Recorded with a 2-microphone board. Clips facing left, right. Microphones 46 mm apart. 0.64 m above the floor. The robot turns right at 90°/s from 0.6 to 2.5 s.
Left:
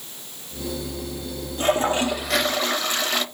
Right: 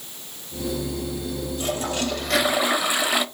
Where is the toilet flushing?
110° left, 0.5 m; by 3.2 s 165° right, 0.5 m.